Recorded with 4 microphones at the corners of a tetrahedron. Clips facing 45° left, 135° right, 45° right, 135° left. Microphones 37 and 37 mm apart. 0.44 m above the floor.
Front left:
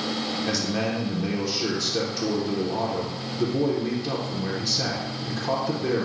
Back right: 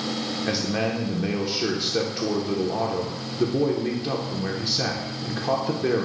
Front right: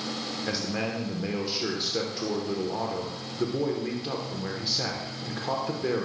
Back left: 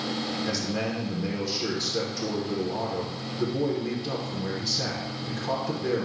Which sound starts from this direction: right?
A man speaking, at 0.5 s.